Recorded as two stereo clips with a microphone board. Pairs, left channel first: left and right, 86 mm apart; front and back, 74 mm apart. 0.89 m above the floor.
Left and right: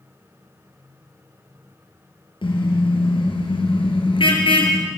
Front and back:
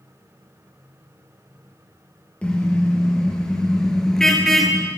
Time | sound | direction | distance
2.4 | a car horn | 75° left | 7.5 m